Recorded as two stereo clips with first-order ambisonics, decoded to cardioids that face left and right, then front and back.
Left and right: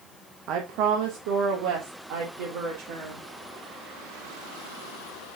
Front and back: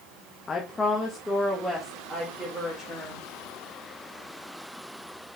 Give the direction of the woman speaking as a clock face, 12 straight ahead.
2 o'clock.